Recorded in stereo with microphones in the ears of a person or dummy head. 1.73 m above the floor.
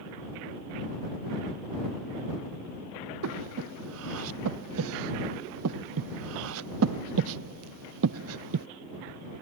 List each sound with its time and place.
3.2 s breathing: 70° right (ahead or behind)